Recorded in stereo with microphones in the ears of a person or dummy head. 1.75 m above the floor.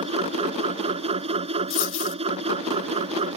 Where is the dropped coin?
75° left (ahead or behind).